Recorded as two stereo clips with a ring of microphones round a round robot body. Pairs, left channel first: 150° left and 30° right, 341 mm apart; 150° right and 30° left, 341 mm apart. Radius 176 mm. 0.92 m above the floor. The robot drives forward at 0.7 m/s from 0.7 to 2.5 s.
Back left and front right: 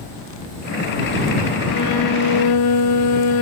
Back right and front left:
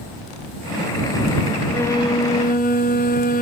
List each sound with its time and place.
1.7 s a violin: 125° left, 1.0 m; by 3.4 s 145° left, 1.4 m